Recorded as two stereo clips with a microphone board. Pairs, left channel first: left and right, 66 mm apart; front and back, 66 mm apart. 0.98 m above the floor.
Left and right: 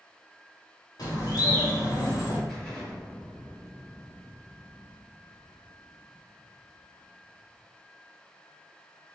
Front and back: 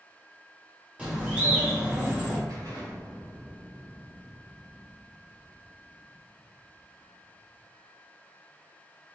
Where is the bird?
110° left, 1.6 m.